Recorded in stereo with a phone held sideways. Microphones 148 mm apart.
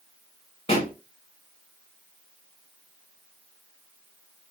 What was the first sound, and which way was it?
A pop, 40° left (ahead or behind).